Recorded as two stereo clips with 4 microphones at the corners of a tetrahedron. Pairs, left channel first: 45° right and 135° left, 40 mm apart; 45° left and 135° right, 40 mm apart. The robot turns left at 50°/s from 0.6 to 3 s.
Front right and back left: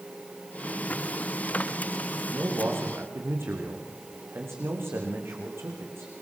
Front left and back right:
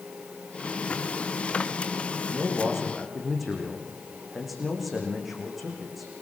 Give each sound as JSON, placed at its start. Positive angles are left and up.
{"t": 2.3, "sound": "a man speaking", "azimuth_deg": 175, "distance_m": 7.5}